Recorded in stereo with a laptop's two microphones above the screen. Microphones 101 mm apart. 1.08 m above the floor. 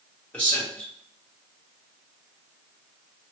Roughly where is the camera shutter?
I don't hear a camera shutter.